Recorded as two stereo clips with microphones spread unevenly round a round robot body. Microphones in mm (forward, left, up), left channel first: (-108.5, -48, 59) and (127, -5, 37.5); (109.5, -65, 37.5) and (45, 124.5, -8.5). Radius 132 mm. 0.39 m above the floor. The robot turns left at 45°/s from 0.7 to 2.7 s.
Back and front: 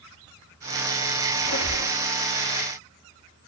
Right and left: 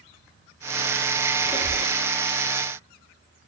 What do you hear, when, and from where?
1.4 s a squeak: 170° right, 2 m; by 1.9 s 165° left, 2 m